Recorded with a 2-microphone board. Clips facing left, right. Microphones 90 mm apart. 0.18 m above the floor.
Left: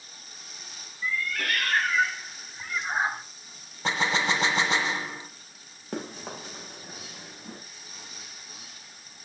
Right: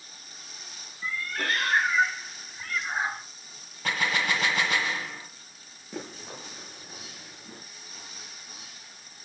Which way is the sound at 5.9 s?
55° left (ahead or behind).